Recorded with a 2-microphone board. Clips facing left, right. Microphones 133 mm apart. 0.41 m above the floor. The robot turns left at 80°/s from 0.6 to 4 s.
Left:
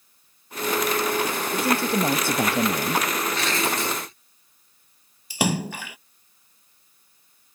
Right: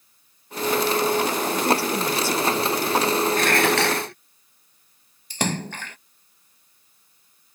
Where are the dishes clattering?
50° right; by 4.2 s 105° right.